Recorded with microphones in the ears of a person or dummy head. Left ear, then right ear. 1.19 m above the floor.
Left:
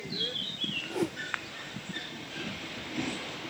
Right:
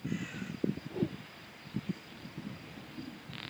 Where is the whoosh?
50° left (ahead or behind).